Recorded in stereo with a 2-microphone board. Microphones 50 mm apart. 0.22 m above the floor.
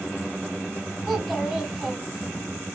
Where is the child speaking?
5° right (ahead or behind), 1.3 m.